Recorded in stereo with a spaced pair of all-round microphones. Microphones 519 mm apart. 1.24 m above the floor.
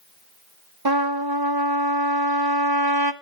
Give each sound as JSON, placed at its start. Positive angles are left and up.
{"t": 0.8, "sound": "a trumpet", "side_deg": -45, "distance_m": 0.9}